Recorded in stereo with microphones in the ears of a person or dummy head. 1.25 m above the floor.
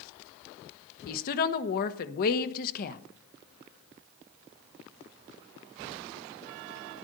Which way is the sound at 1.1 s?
55° left (ahead or behind).